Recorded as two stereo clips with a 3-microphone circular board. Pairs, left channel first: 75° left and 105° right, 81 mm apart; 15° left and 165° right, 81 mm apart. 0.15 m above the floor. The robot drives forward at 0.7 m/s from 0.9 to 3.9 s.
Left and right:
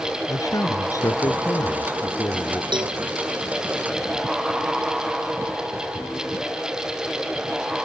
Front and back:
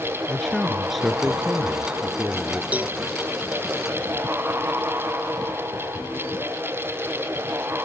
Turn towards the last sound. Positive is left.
turn(degrees=-105)